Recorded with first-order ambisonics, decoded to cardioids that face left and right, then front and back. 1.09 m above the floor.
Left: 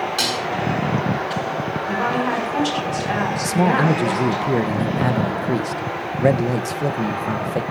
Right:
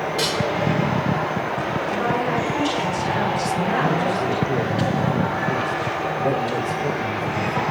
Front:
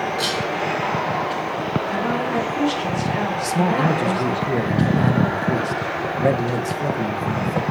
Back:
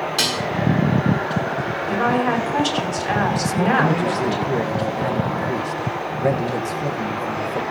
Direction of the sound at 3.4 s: 80° left.